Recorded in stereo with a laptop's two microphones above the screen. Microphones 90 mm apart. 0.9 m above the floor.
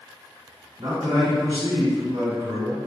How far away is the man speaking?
About 1.7 m.